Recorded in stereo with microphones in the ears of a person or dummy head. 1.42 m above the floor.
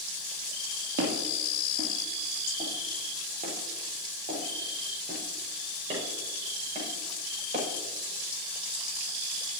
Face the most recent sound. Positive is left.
turn(degrees=-35)  # may be behind; listen again after turning